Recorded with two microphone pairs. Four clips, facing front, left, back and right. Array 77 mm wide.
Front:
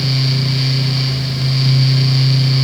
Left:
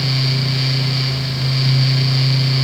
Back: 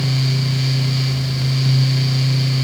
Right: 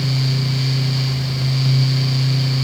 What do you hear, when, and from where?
Only background noise.